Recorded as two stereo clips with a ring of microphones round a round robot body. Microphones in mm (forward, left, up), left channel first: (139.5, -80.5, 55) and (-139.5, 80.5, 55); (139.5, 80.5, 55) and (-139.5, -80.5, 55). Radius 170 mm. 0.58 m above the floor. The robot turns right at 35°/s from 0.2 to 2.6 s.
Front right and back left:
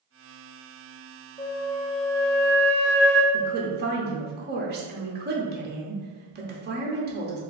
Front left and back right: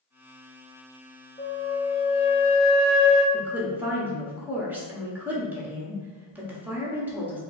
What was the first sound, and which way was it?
A flute, 5° left.